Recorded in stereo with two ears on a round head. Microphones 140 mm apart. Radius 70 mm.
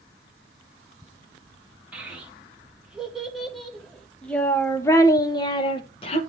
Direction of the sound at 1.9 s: 10° right (ahead or behind).